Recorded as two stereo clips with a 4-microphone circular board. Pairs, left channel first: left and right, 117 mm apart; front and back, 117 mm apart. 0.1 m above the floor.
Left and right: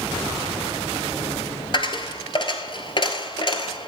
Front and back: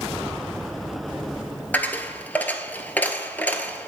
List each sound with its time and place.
1.7 s a dropped coin: 70° left, 0.9 m